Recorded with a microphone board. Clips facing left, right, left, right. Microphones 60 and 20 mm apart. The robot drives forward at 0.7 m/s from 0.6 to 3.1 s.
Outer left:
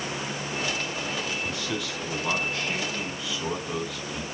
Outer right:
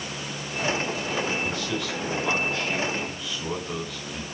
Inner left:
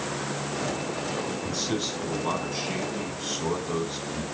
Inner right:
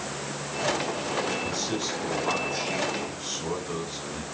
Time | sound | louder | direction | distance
1.4 | a man speaking | outer right 2 dB, even | 5° left (ahead or behind) | 5.5 m